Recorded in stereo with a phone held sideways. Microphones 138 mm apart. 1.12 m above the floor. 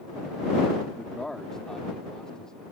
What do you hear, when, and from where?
1.0 s a man speaking: 5° left (ahead or behind)